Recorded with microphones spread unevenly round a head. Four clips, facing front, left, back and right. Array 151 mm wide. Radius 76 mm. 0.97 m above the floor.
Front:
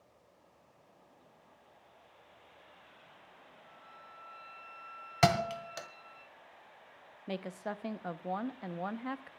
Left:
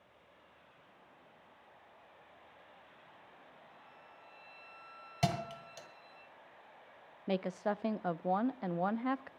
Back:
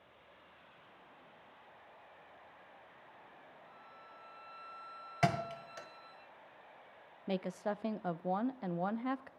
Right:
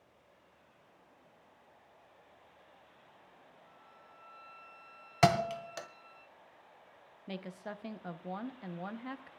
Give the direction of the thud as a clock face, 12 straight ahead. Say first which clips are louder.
Right 8 dB, front 5 dB; 3 o'clock.